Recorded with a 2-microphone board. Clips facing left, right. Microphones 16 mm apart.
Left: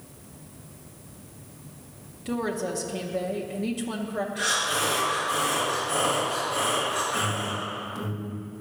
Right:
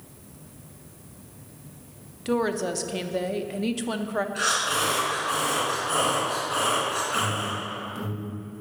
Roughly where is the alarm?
Centre.